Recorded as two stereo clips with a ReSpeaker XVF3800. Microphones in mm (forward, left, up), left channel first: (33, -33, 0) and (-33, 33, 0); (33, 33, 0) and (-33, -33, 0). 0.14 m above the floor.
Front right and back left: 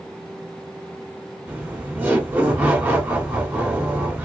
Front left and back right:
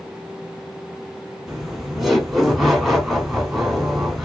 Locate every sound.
1.5 s laughter: 140° left, 1.3 m